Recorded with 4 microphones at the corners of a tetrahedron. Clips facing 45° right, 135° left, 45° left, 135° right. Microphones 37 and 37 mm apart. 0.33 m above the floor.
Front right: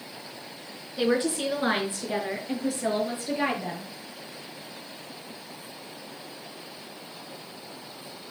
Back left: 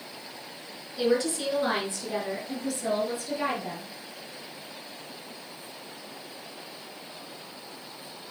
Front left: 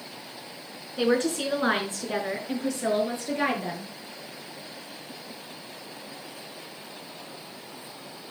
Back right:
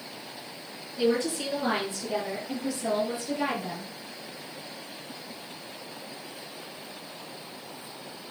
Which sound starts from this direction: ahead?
A woman speaking, at 1.0 s.